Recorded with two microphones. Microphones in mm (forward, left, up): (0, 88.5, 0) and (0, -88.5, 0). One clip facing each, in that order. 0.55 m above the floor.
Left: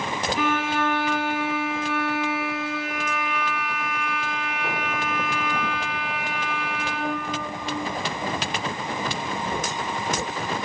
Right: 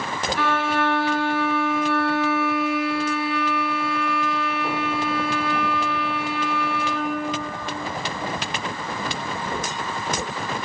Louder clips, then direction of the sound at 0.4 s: Right 2 dB; 20° left (ahead or behind).